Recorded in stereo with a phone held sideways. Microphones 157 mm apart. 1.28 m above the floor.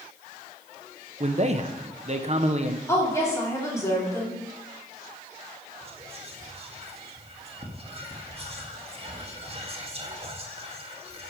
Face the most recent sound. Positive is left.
turn(degrees=-40)  # may be behind; listen again after turning